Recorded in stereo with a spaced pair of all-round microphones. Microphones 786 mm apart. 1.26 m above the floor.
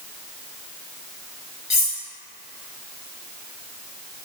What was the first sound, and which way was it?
Cutlery clinking, 30° left (ahead or behind).